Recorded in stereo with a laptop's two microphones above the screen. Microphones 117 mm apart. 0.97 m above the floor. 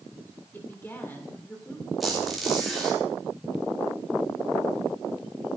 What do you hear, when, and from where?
0.5 s a woman speaking: 20° left (ahead or behind), 2.5 m
2.0 s a squeak: centre (ahead or behind), 4 m